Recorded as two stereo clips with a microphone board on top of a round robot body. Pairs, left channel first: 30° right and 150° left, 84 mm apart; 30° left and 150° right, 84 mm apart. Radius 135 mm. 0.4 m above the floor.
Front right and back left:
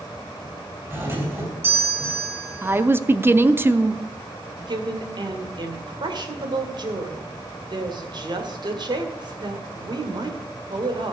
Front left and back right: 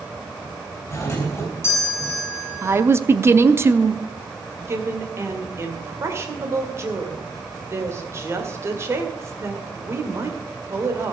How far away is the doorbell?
About 4 m.